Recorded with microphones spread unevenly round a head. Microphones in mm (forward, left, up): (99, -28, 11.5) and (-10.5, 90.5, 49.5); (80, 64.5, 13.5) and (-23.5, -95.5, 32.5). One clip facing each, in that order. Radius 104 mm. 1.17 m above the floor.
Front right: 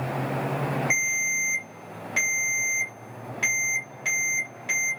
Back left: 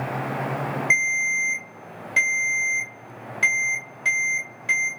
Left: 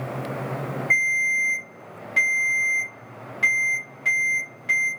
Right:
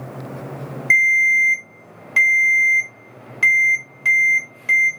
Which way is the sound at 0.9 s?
160° right.